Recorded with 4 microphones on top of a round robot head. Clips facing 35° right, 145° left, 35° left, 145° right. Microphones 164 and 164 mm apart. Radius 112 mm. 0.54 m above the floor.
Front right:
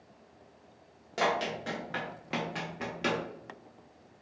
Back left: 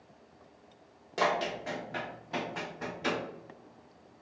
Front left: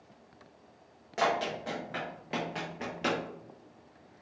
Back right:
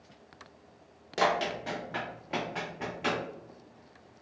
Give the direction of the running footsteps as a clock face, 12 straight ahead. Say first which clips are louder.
Even, back right 1 dB; 4 o'clock.